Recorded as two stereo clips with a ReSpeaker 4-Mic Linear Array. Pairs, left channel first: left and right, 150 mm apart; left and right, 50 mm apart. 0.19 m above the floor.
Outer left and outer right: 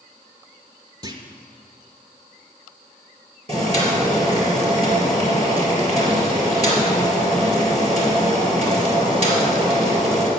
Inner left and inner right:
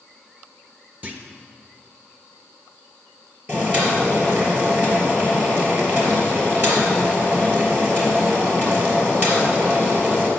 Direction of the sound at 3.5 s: 40° right (ahead or behind).